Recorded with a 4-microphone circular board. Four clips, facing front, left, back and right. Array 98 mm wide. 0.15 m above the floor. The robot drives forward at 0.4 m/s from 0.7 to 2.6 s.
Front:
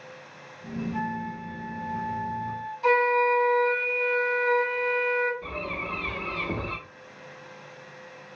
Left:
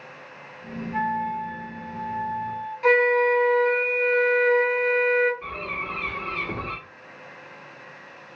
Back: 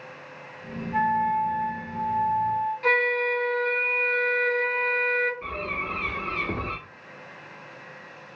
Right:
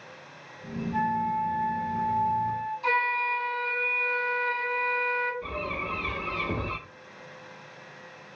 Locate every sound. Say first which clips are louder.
0.9 s a flute: left 1 dB, back 13 dB; 160° left, 0.5 m; by 2.7 s 170° left, 1.2 m
2.8 s a flute: left 10 dB, front 7 dB; 120° left, 0.8 m
5.4 s a bird: even, back 2 dB; 160° left, 1.8 m